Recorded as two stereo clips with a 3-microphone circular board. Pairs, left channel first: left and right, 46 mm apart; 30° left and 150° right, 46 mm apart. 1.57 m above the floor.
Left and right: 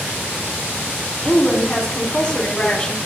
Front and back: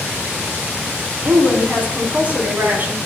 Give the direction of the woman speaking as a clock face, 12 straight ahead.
7 o'clock.